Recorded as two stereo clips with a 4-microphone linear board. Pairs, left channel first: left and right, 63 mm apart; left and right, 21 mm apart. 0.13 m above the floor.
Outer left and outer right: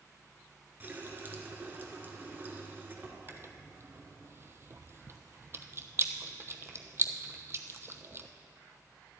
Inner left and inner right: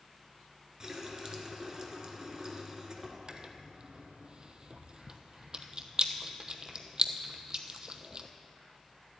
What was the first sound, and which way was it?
A running tap, 30° right (ahead or behind).